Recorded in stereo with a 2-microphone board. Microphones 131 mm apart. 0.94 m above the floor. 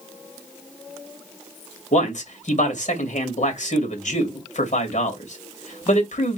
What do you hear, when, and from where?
1.9 s a man speaking: 70° left (ahead or behind), 2 m